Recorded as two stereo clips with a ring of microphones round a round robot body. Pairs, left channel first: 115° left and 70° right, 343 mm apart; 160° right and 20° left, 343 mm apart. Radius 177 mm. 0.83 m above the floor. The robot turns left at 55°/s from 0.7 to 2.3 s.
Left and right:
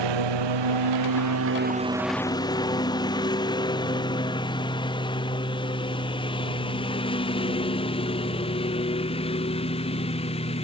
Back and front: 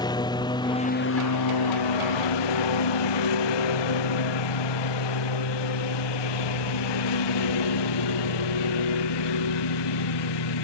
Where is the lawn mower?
80° right; by 10.7 s 175° right.